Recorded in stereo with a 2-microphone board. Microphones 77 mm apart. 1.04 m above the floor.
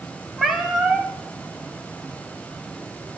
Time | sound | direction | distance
0.4 | a cat meowing | 5° right (ahead or behind) | 1.5 m